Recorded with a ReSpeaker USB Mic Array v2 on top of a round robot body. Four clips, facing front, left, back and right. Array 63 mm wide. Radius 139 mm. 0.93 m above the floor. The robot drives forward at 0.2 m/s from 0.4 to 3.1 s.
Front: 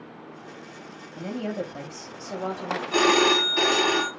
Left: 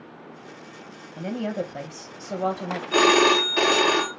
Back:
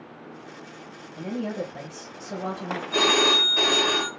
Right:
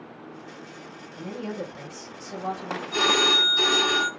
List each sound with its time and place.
1.2 s a woman speaking: 65° left, 0.8 m; by 2.8 s 95° left, 0.8 m
2.9 s a phone ringing: 85° left, 0.7 m; by 4.1 s 90° left, 0.7 m